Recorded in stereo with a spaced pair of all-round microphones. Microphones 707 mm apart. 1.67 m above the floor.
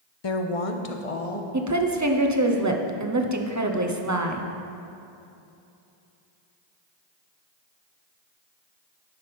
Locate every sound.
0.2 s a woman speaking: 40° left (ahead or behind), 0.6 m; by 1.4 s 60° left (ahead or behind), 1.3 m
1.5 s a woman speaking: 25° right (ahead or behind), 0.9 m